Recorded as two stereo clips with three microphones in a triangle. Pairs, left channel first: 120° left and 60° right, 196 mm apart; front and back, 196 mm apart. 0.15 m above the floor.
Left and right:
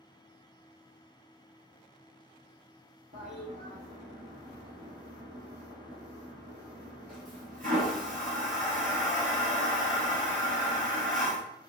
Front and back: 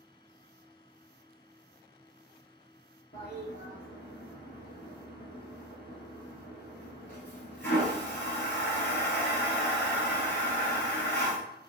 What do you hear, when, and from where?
3.1 s a toilet flushing: 20° right, 1.1 m